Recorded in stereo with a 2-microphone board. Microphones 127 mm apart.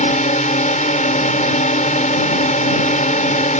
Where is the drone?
75° left (ahead or behind).